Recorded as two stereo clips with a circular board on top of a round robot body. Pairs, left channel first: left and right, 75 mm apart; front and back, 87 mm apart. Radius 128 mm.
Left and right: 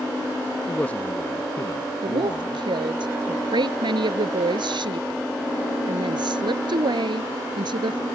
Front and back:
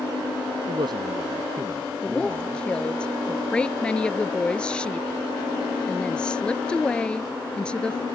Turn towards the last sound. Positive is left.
turn(degrees=-80)